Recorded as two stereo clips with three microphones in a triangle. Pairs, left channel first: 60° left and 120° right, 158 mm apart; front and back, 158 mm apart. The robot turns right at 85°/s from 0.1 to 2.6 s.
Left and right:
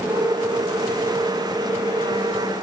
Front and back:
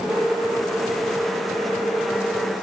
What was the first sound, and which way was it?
Only background noise.